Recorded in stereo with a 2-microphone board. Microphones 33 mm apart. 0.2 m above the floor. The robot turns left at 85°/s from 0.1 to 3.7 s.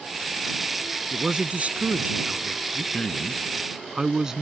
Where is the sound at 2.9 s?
40° left; by 4.4 s 25° right.